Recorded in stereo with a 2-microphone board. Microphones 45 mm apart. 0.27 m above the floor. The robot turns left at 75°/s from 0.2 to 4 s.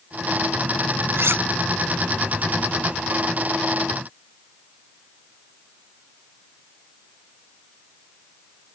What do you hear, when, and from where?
1.1 s cutlery clinking: 65° right (ahead or behind); by 1.4 s 60° right (ahead or behind)